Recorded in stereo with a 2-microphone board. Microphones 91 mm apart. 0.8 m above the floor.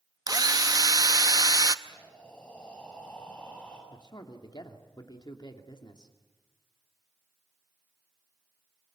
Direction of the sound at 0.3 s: 45° right (ahead or behind).